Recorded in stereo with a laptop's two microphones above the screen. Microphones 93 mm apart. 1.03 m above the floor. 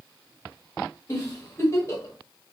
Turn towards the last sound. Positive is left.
turn(degrees=35)  # may be behind; listen again after turning